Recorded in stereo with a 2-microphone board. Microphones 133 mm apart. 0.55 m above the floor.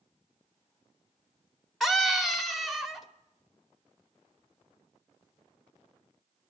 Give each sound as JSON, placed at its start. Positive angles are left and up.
{"t": 1.8, "sound": "a scream", "side_deg": 0, "distance_m": 1.2}